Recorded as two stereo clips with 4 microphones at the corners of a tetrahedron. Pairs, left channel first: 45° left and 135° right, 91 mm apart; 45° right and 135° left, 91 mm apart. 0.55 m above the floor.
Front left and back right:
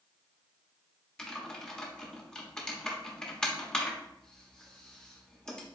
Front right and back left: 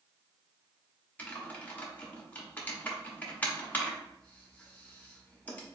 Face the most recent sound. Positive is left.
turn(degrees=-20)